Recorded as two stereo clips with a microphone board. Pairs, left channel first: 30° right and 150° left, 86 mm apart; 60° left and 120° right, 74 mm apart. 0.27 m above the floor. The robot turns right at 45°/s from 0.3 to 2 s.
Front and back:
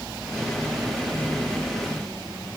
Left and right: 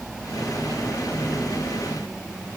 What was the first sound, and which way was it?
Only background noise.